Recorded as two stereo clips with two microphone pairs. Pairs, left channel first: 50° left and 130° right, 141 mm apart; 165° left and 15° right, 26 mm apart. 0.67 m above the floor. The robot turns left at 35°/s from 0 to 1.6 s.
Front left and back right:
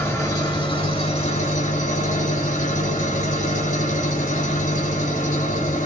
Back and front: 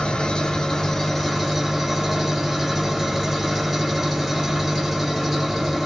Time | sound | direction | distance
0.0 | an engine running | 125° left | 1.4 m